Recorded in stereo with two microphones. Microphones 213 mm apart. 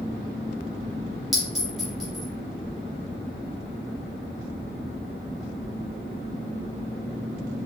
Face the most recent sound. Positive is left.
turn(degrees=0)  # may be behind; listen again after turning